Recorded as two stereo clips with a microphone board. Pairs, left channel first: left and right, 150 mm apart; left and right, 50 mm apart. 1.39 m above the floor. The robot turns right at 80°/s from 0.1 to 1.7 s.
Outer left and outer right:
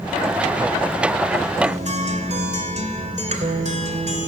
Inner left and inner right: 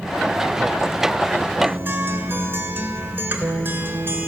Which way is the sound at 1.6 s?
45° right (ahead or behind).